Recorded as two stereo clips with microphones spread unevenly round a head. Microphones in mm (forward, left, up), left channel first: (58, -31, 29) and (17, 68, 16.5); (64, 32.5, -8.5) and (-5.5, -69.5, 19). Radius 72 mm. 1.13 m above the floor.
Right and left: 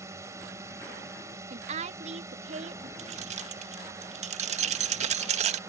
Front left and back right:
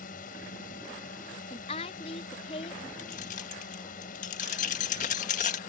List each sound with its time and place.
0.0 s a drone: 50° left
1.5 s a woman speaking: 105° left
3.0 s keys jangling: 95° left